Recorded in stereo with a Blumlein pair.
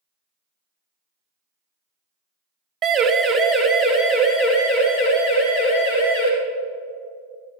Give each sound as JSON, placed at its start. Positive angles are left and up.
{"t": 2.8, "sound": "a siren", "azimuth_deg": -20, "distance_m": 2.0}